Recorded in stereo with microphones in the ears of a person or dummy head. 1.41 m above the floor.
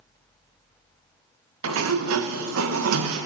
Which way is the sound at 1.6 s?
85° right.